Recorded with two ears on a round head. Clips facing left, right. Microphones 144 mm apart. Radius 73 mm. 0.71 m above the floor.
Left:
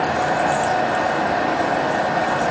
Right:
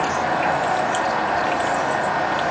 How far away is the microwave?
No microwave in this recording.